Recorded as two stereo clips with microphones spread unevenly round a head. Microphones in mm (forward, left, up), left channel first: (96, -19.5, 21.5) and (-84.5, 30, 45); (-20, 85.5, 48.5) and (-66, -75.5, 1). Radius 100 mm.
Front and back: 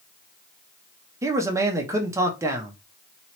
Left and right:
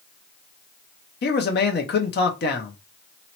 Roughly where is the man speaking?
Left.